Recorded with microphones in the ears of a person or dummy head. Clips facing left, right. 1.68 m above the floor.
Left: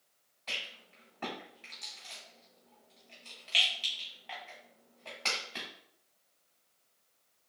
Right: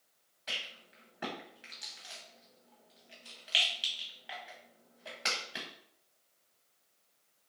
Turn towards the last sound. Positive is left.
turn(degrees=-10)  # may be behind; listen again after turning